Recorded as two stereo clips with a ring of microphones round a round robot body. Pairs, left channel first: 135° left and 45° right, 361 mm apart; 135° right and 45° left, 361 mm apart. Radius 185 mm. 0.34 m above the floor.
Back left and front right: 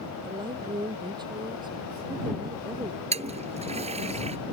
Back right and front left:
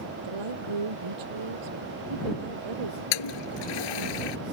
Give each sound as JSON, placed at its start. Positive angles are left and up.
{"t": 0.2, "sound": "a woman speaking", "azimuth_deg": 35}
{"t": 3.1, "sound": "a toilet flushing", "azimuth_deg": -120}